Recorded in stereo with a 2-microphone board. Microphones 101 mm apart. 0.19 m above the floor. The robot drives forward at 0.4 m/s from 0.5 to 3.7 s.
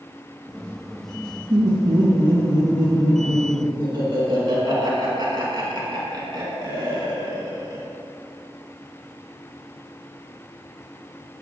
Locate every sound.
1.5 s laughter: 45° right (ahead or behind), 2 m